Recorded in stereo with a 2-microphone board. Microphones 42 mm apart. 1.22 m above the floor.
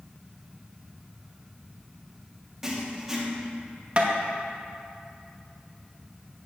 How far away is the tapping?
About 1.1 m.